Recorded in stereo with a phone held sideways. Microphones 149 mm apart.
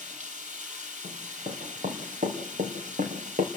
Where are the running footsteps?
50° right (ahead or behind), 4.5 m; by 3.5 s 65° right (ahead or behind), 3 m.